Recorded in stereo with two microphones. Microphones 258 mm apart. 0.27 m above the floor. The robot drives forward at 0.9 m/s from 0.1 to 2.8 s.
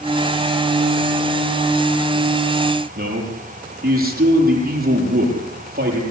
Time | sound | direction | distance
3.0 | a man speaking | 35° right (ahead or behind) | 8.5 m